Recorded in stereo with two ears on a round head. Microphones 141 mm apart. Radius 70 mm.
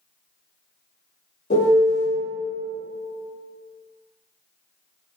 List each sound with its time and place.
1.5 s a piano: 50° left (ahead or behind), 0.7 m